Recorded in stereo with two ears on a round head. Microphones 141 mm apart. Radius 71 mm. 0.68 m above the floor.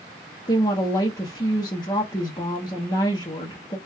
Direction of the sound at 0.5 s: 25° left (ahead or behind).